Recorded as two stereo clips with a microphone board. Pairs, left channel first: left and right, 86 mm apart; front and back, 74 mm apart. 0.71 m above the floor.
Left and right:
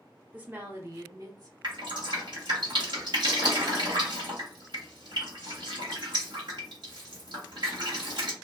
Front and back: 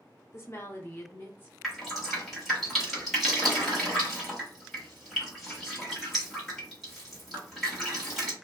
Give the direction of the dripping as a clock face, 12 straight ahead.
3 o'clock.